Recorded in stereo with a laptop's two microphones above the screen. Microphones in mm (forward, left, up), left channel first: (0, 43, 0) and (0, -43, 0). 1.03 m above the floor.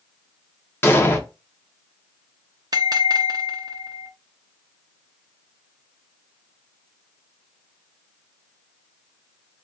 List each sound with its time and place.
0.8 s an explosion: 25° left (ahead or behind), 0.6 m
2.7 s a bell: 50° right (ahead or behind), 0.7 m